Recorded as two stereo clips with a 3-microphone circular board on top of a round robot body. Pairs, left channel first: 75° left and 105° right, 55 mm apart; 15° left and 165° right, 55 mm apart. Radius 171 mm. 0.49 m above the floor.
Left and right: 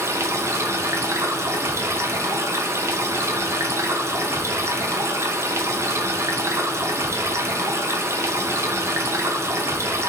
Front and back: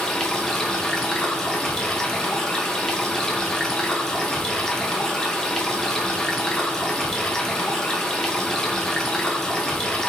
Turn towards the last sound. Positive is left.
turn(degrees=-65)